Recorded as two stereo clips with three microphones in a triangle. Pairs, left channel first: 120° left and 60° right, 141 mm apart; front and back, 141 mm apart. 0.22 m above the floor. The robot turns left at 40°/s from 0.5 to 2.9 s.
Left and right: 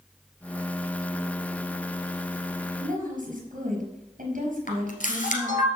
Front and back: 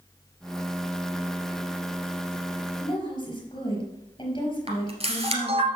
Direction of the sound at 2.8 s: 45° right.